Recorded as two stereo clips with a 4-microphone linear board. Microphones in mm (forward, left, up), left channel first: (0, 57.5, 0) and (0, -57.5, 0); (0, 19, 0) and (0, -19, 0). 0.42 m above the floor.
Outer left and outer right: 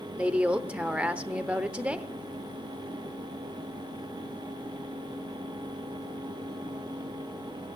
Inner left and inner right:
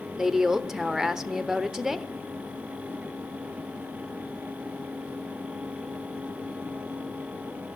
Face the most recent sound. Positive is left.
turn(degrees=-10)  # may be behind; listen again after turning